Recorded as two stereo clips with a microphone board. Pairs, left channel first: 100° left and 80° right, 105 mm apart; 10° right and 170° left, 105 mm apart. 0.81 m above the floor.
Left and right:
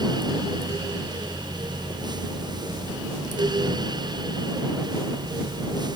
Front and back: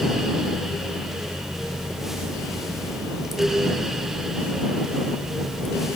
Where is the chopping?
No chopping in this recording.